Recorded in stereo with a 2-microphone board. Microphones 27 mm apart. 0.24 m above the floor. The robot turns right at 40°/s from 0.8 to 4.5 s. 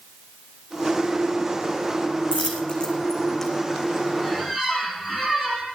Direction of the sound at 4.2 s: Centre (ahead or behind).